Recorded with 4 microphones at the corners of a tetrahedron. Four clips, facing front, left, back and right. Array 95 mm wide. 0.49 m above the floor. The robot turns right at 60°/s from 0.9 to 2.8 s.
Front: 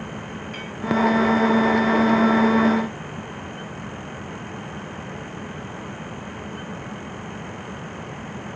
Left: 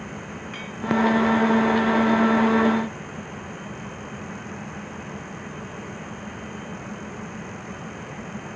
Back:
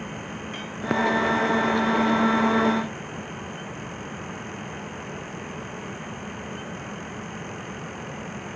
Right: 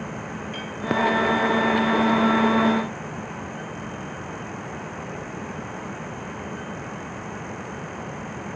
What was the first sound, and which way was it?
A clink, 120° left.